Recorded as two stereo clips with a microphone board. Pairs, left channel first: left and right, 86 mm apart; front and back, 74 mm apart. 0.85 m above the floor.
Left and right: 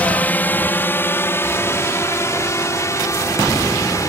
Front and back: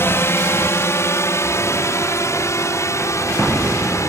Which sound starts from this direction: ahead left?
A drone, at 0.0 s.